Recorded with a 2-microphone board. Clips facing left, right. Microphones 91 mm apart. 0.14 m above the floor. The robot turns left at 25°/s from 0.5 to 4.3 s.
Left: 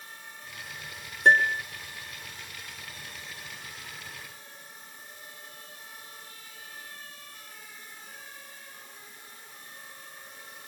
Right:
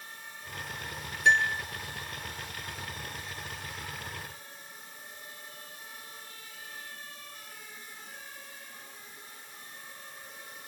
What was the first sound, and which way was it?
A piano, 45° left (ahead or behind).